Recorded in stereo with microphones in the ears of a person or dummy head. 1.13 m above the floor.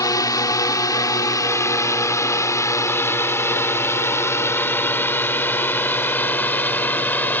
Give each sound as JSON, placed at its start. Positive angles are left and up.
{"t": 0.0, "sound": "a drone", "side_deg": 25}